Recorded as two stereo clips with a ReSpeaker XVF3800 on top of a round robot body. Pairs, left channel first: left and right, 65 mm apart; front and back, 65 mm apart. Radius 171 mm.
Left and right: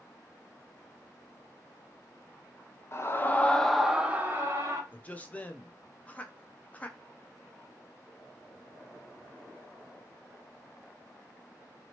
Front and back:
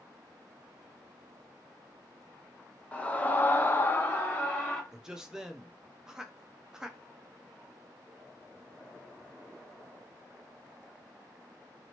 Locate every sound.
2.9 s a scream: 65° left, 1.0 m; by 4.8 s 60° right, 1.1 m
4.9 s a man speaking: 115° left, 0.7 m